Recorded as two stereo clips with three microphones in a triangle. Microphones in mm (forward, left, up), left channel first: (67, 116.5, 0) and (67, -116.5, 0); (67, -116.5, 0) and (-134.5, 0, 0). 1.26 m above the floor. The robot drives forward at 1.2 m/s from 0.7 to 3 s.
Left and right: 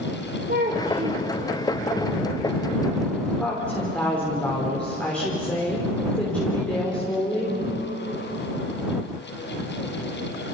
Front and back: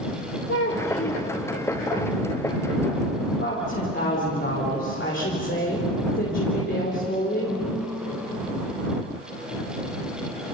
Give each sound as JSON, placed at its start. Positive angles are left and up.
{"t": 0.5, "sound": "a child speaking", "azimuth_deg": -40, "distance_m": 2.5}
{"t": 3.4, "sound": "a woman speaking", "azimuth_deg": 5, "distance_m": 3.5}